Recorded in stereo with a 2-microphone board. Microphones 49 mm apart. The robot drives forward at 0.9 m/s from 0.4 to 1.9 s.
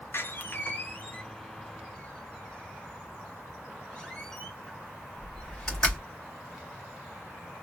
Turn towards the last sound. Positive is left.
turn(degrees=20)  # may be behind; listen again after turning